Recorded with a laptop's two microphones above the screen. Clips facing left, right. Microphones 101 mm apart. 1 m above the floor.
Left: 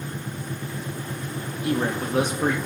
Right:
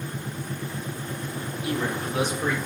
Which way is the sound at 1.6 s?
50° left (ahead or behind).